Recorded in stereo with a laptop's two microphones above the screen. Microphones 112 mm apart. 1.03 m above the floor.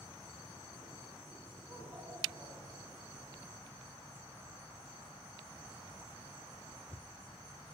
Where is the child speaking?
20° right (ahead or behind), 2.5 m.